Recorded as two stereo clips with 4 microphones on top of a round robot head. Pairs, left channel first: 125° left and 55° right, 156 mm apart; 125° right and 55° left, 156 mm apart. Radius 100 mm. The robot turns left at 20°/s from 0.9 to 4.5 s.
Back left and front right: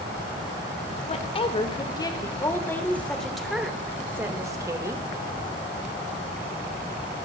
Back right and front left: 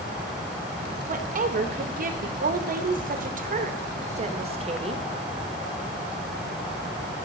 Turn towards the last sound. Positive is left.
turn(degrees=10)